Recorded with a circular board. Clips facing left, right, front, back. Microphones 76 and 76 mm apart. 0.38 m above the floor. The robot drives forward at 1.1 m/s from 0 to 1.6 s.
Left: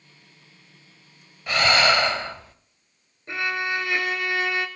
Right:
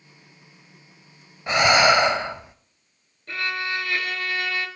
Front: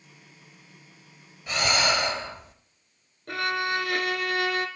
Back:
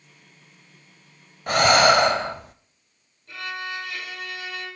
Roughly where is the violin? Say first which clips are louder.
Left 2 dB, front 5 dB; ahead.